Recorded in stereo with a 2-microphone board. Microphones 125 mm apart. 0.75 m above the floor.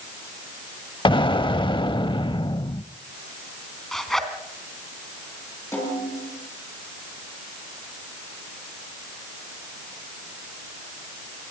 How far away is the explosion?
About 0.7 m.